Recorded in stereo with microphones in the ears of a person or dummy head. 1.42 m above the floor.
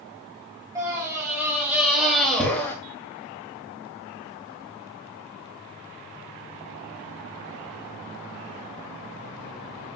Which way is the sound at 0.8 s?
15° right (ahead or behind).